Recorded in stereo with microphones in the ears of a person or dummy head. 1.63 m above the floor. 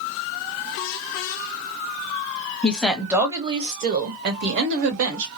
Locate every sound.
2.6 s a woman speaking: 10° left (ahead or behind), 0.8 m; by 5.3 s 70° right (ahead or behind), 1.3 m